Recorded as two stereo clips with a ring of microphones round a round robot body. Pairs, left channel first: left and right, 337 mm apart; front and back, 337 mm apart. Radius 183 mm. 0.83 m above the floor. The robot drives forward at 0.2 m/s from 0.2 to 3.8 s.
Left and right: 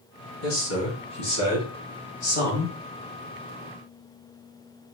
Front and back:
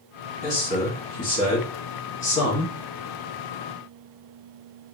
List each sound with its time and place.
0.4 s a man speaking: 50° left, 1.6 m; by 2.7 s 65° left, 1.3 m